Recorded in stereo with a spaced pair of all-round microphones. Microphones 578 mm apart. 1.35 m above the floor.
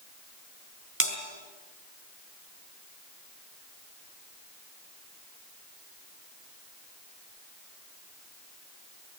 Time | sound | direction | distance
1.0 | a bell | 25° right (ahead or behind) | 3.5 m